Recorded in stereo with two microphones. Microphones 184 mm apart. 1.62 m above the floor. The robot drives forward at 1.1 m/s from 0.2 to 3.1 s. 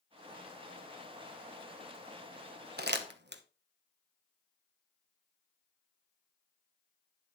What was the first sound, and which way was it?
Crumpling, 55° right (ahead or behind).